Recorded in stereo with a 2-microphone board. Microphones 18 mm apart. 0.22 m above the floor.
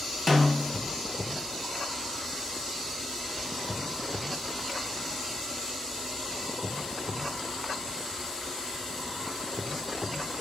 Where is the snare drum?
5° right (ahead or behind), 0.9 m.